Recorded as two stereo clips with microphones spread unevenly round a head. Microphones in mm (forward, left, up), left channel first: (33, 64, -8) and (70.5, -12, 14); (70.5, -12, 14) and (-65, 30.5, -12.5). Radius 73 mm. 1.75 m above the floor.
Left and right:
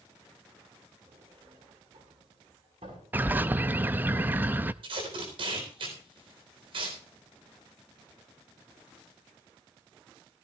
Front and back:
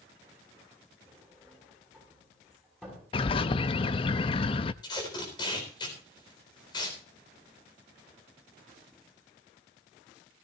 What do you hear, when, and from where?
1.1 s a sliding door: 105° right, 5.5 m
3.1 s a bird: 25° right, 0.5 m
4.8 s tape being pulled: 75° right, 3.5 m